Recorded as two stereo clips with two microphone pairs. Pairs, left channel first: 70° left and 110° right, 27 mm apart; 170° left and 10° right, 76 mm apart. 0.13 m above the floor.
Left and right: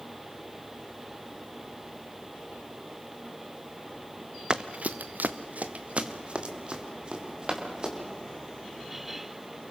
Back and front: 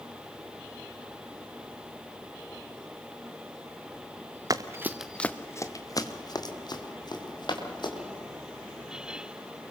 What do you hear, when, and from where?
4.5 s running footsteps: 50° right, 1.0 m; by 7.9 s 170° right, 4.5 m